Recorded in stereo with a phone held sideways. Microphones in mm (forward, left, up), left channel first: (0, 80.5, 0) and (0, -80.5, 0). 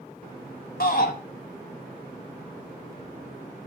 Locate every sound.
0.8 s a shout: 70° left (ahead or behind), 1.5 m